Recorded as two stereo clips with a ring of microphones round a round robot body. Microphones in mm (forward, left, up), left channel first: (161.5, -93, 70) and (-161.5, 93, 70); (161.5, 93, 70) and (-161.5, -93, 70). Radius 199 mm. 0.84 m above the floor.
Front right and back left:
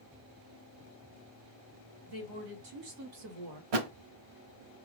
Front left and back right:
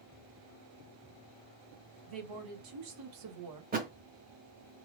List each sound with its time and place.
2.1 s a woman speaking: 175° right, 3 m; by 3.6 s 175° left, 1.1 m
3.7 s a thud: 145° left, 0.7 m